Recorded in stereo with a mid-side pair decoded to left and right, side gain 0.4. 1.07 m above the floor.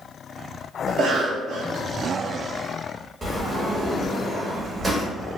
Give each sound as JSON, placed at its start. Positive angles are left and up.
{"t": 0.9, "sound": "a cough", "azimuth_deg": -70, "distance_m": 0.7}
{"t": 3.2, "sound": "a sliding door", "azimuth_deg": -35, "distance_m": 1.2}